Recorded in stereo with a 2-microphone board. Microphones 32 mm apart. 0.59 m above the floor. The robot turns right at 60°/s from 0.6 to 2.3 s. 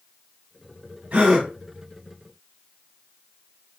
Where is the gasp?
55° right (ahead or behind), 1.5 m; by 1.5 s 30° right (ahead or behind), 1.5 m.